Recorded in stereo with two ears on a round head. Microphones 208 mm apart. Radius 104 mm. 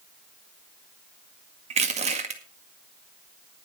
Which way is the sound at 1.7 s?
30° right (ahead or behind).